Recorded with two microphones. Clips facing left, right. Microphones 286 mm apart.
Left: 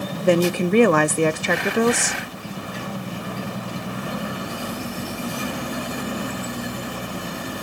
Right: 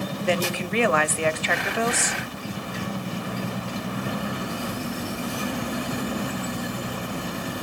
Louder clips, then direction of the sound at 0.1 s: Left 9 dB; 50° left (ahead or behind).